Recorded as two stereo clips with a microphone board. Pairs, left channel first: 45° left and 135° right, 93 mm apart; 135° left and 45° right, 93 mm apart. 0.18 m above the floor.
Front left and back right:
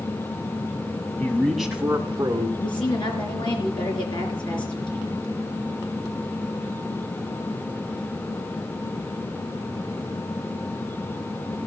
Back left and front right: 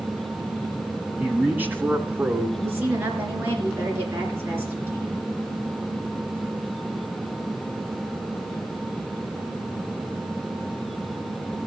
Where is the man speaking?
Straight ahead, 1.3 m; by 2.5 s 100° right, 1.7 m.